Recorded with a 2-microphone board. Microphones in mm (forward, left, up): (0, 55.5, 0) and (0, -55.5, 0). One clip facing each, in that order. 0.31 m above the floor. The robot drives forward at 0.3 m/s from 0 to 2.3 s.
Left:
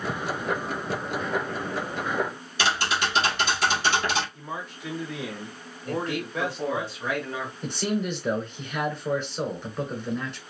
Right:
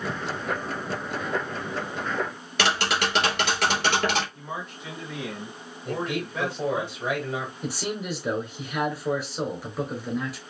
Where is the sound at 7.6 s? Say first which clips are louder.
Left 3 dB; 5° right (ahead or behind), 1.1 m.